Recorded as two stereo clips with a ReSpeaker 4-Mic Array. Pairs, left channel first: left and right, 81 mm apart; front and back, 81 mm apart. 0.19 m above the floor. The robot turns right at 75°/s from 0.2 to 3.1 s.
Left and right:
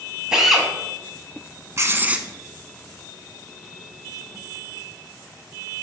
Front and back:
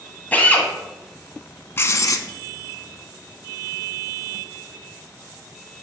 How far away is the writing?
About 0.5 m.